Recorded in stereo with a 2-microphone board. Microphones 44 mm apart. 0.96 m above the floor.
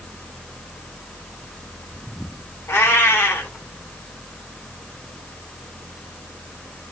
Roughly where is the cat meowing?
Left.